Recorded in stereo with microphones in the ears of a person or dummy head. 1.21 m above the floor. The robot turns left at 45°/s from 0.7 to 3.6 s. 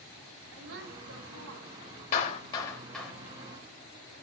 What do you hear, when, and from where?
0.5 s a woman speaking: 65° right, 6 m; by 2.0 s 125° right, 6 m
2.1 s a clap: 40° left (ahead or behind), 4 m; by 3.1 s 5° right (ahead or behind), 4 m